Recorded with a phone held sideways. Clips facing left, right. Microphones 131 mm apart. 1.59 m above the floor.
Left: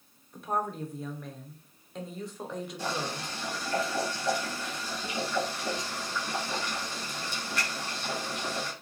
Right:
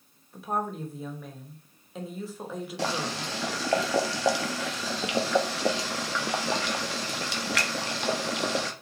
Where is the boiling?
80° right, 0.7 m.